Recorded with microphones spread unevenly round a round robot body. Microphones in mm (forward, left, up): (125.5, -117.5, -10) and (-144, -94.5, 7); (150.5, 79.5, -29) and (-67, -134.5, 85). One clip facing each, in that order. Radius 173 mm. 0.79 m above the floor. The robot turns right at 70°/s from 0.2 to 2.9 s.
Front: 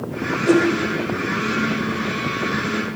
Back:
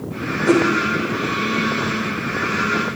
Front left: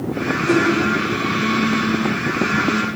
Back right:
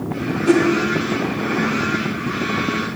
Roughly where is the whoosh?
Right.